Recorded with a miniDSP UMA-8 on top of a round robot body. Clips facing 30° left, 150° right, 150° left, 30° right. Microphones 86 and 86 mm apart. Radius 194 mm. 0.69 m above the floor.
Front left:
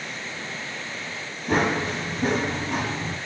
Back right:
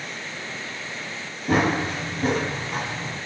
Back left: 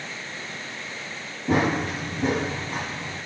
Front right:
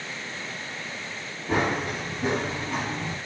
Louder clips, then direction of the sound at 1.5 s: Back right 1 dB, back left 3 dB; 135° left.